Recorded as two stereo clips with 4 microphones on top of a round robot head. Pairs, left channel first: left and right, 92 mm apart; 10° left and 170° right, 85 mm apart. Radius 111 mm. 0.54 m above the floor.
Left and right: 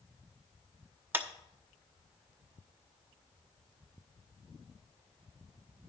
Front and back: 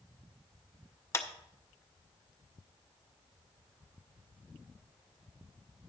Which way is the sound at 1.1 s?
30° right.